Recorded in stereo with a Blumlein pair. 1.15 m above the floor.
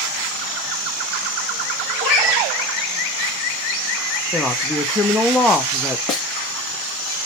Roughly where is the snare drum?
Ahead left.